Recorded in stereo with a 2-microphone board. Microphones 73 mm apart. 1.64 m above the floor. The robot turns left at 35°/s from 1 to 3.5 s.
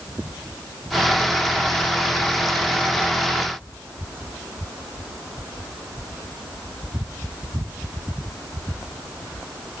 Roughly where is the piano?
No piano in this recording.